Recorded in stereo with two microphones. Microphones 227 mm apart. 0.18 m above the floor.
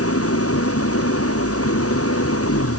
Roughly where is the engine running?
Left.